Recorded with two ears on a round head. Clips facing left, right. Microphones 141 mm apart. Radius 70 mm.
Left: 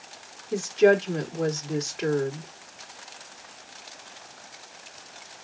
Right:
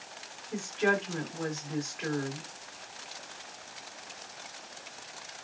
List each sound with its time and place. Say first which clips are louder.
0.5 s a woman speaking: left 10 dB; 45° left (ahead or behind), 2.5 m